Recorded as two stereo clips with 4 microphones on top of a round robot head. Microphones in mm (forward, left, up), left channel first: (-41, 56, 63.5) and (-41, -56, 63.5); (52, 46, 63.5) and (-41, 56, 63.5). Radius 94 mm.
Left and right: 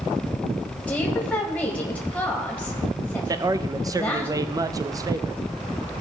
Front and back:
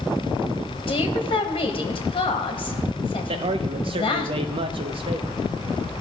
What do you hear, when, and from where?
0.9 s a woman speaking: 10° left, 1.4 m
3.3 s a man speaking: 150° right, 0.6 m